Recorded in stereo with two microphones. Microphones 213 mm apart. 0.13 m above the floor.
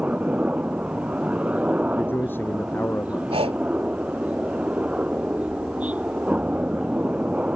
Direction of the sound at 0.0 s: 5° right (ahead or behind).